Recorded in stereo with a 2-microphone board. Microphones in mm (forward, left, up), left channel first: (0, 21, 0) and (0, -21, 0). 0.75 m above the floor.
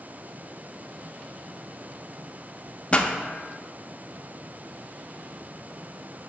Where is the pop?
25° left (ahead or behind), 0.6 m.